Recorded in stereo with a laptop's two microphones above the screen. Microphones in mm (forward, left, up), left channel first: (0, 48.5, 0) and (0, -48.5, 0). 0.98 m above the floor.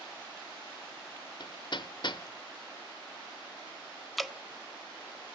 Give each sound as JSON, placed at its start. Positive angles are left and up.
{"t": 1.4, "sound": "hammering", "side_deg": 55, "distance_m": 0.7}
{"t": 4.2, "sound": "dripping", "side_deg": 0, "distance_m": 0.6}